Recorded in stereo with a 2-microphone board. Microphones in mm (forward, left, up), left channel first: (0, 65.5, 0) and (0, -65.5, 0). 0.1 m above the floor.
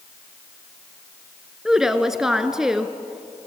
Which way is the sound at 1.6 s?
5° right (ahead or behind).